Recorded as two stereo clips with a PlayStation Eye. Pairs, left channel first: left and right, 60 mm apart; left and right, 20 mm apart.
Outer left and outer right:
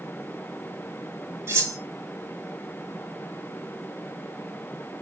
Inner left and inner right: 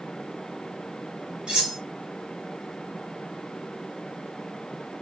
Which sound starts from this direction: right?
Cutlery clinking, at 1.5 s.